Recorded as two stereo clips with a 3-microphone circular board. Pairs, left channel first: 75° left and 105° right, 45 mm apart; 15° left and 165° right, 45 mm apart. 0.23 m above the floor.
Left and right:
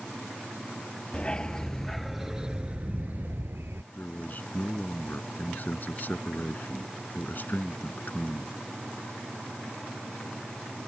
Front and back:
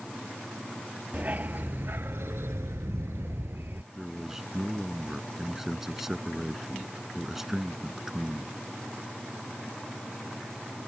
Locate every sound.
1.1 s a dog barking: 140° left; by 3.8 s 125° right
3.9 s a man speaking: 115° left